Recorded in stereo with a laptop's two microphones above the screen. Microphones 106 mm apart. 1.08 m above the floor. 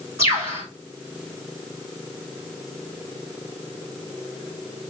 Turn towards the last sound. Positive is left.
turn(degrees=-30)  # may be behind; listen again after turning